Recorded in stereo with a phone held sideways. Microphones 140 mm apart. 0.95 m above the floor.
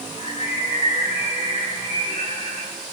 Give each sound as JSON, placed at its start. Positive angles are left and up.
{"t": 0.2, "sound": "a bird", "side_deg": 50, "distance_m": 2.5}